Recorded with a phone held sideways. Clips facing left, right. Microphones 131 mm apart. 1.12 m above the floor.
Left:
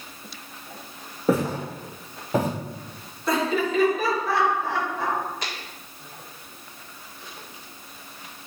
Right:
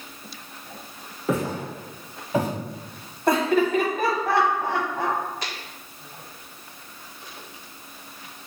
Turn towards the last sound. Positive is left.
turn(degrees=-55)  # may be behind; listen again after turning